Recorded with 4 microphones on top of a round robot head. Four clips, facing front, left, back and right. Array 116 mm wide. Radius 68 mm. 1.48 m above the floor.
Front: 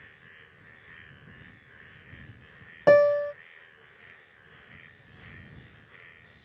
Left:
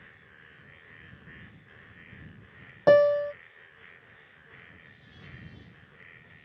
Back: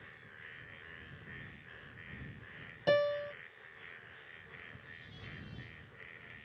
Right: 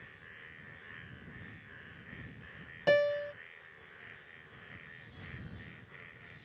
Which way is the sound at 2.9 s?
40° left.